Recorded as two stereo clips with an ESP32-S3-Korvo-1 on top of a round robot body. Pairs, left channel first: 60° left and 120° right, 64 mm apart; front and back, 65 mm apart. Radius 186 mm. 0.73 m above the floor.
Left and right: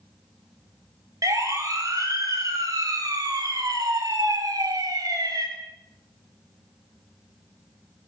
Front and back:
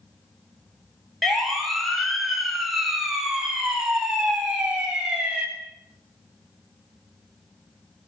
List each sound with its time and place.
1.2 s a siren: 85° right, 9 m; by 5.5 s 105° right, 9.5 m